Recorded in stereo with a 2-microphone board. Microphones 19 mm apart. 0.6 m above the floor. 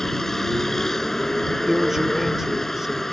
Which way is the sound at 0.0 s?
20° left (ahead or behind).